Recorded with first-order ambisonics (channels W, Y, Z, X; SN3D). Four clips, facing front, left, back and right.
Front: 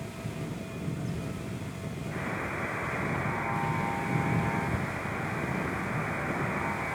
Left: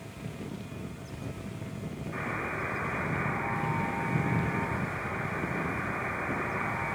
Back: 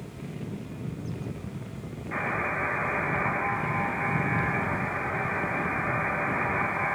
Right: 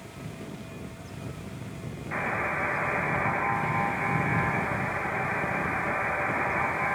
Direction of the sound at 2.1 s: 115° right.